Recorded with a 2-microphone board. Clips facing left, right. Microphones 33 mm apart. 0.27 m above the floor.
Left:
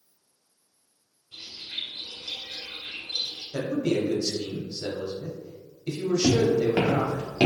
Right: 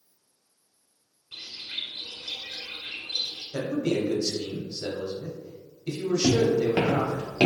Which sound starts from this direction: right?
A bird, at 1.3 s.